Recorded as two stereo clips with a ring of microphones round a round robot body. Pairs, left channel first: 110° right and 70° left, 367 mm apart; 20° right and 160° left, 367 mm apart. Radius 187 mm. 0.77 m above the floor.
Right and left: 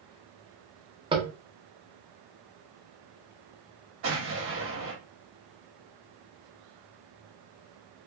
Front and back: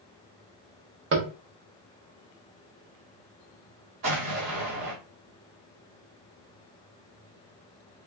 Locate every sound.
1.1 s tapping: 135° left, 0.8 m
4.0 s an explosion: 125° left, 1.2 m